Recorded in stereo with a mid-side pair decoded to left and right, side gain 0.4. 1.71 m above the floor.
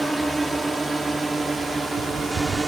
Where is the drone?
20° right; by 2.7 s 35° right.